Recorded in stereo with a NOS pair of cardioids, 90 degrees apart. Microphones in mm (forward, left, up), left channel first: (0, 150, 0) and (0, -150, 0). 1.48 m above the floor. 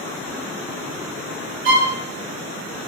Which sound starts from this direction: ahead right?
A violin, at 1.6 s.